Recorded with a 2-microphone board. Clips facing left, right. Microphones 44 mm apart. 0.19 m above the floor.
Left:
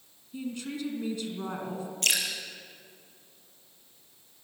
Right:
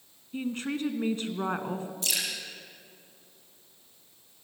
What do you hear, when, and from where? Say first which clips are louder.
0.3 s a woman speaking: right 4 dB; 45° right (ahead or behind), 2.0 m
2.0 s dripping: left 6 dB; 60° left (ahead or behind), 4.5 m